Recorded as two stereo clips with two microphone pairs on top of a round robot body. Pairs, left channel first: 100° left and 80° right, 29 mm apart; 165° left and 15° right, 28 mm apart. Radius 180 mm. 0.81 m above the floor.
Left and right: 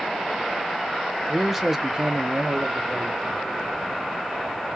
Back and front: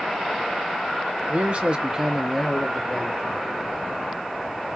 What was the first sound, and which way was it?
A man speaking, 10° left.